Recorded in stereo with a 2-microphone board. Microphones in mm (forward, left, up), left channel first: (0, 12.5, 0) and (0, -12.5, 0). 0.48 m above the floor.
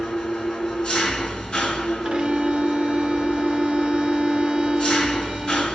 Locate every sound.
0.0 s an engine running: 30° left (ahead or behind), 4 m
2.0 s a violin: 40° right (ahead or behind), 1.1 m